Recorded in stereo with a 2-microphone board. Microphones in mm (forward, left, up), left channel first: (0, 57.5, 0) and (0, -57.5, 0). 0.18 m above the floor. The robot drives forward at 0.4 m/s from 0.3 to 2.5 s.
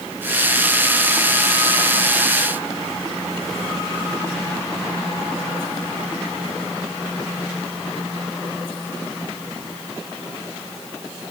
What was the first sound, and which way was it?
Only background noise.